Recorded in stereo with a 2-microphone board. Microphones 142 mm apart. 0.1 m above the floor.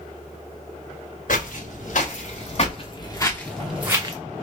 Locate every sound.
1.3 s footsteps: 70° left (ahead or behind), 1.4 m; by 4.2 s 30° right (ahead or behind), 0.7 m